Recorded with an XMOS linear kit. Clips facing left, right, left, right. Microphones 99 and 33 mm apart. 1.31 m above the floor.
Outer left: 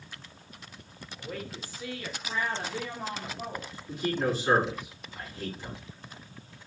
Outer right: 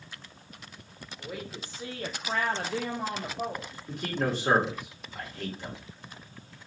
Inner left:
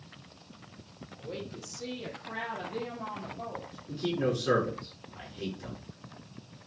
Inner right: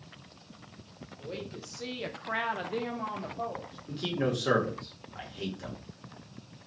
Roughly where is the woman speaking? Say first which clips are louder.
Even, even; centre.